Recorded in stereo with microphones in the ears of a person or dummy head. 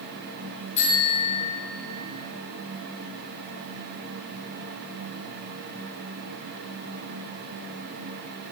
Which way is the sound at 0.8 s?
35° left (ahead or behind).